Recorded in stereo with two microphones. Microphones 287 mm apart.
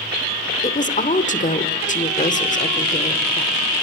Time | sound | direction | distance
0.6 | a woman speaking | 25° left (ahead or behind) | 1.4 m